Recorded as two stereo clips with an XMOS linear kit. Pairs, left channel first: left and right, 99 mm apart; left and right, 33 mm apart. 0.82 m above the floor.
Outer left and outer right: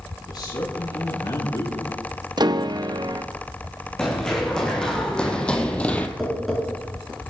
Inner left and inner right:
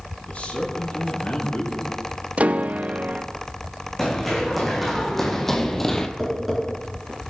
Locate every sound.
0.3 s a man speaking: 40° left (ahead or behind), 7.5 m
2.4 s a piano: 45° right (ahead or behind), 0.6 m
4.0 s running footsteps: 5° left (ahead or behind), 4.5 m; by 6.1 s 15° left (ahead or behind), 1.5 m
6.2 s tapping: centre (ahead or behind), 9 m